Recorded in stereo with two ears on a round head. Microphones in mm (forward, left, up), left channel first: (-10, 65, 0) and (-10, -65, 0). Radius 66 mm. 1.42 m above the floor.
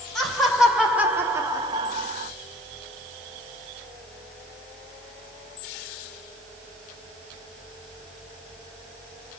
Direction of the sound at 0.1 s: Centre (ahead or behind).